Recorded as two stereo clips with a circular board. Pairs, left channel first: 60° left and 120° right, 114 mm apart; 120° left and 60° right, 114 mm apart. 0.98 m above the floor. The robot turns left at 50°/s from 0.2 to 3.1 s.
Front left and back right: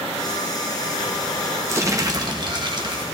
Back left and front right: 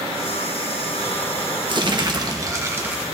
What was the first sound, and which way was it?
Crumpling, 65° right.